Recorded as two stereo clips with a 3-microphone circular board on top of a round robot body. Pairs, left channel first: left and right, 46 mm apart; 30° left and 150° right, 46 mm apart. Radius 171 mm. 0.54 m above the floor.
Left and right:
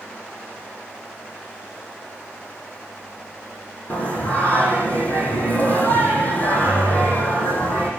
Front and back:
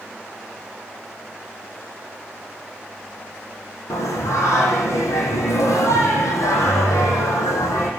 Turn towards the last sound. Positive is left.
turn(degrees=35)